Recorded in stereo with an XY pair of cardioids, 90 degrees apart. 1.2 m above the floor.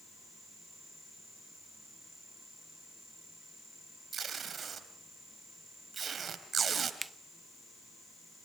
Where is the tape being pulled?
50° right, 3 m.